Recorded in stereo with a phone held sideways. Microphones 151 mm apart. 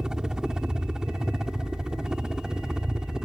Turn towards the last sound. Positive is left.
turn(degrees=-5)  # may be behind; listen again after turning